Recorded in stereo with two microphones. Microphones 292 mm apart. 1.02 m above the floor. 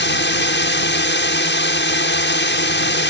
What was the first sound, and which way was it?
A drone, 40° left (ahead or behind).